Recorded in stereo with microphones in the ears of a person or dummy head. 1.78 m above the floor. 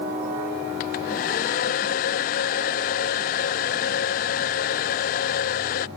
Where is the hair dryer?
45° left (ahead or behind).